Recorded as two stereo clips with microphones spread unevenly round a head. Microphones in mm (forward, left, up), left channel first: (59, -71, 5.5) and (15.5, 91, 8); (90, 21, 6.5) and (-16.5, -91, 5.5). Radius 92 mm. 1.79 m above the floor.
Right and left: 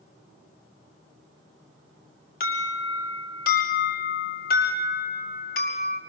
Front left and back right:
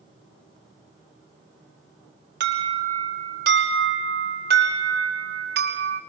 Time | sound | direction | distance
2.4 | an alarm | 125° right | 5 m